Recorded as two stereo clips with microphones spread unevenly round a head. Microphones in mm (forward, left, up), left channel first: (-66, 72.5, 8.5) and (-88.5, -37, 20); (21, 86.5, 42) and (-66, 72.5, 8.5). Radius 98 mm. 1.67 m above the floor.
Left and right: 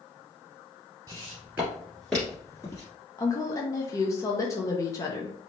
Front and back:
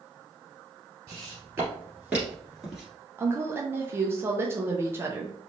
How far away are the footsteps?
About 1.8 m.